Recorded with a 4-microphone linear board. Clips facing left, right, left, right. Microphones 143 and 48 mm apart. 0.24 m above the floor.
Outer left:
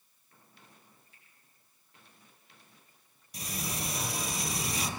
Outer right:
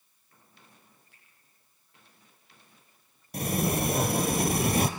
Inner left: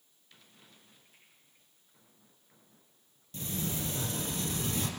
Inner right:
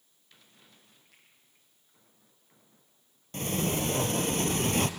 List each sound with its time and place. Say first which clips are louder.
1.1 s a finger snap: even, inner right 2 dB; 75° right (ahead or behind), 9 m
3.3 s a sliding door: outer right 12 dB, inner right 7 dB; 55° right (ahead or behind), 1.2 m